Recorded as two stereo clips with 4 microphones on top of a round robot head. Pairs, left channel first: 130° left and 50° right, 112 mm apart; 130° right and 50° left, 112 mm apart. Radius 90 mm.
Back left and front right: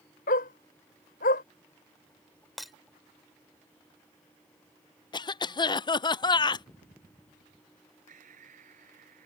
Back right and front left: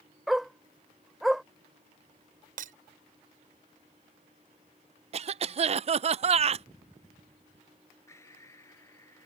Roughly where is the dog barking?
Behind left.